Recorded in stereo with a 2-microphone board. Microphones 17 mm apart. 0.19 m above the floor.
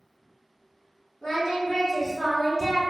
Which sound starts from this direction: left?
Singing, at 1.2 s.